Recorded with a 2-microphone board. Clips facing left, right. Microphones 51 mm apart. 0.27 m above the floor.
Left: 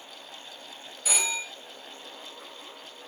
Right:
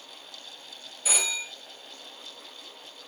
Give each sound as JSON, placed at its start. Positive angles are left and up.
{"t": 1.1, "sound": "a phone ringing", "side_deg": 0, "distance_m": 0.9}